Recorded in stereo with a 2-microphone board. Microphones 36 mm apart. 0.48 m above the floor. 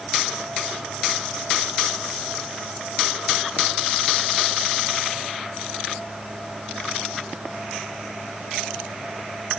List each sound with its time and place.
Only background noise.